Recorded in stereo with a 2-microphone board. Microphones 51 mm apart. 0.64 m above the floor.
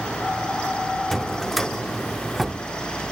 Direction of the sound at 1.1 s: Centre (ahead or behind).